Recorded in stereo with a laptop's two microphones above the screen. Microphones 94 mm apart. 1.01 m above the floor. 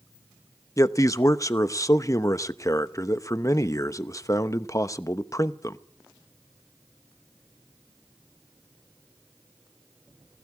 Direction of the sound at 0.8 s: 35° left (ahead or behind).